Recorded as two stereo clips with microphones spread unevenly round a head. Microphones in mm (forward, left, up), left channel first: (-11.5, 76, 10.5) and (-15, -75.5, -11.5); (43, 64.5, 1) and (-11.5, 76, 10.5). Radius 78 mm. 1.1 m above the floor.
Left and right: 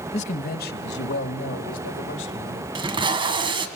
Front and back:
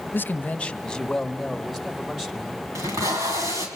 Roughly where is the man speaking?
Ahead left.